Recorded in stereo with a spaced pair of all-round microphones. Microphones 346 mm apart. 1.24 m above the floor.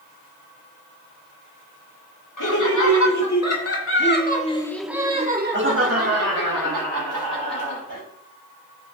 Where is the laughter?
60° left (ahead or behind), 2.5 m; by 8.0 s 70° right (ahead or behind), 3.5 m.